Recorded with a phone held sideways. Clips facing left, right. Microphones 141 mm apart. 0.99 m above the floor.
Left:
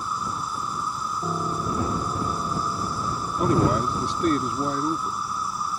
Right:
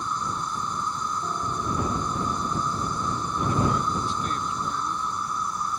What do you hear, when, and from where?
0.0 s an insect: 5° left (ahead or behind)
1.2 s a piano: 30° left (ahead or behind)
3.4 s a man speaking: 70° left (ahead or behind)